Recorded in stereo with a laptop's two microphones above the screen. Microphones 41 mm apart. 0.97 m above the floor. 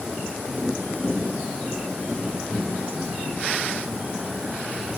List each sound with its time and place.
Only background noise.